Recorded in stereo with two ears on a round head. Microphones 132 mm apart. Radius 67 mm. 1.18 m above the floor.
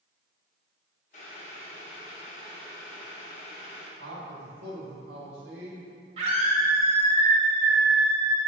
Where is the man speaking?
85° right, 1.7 m.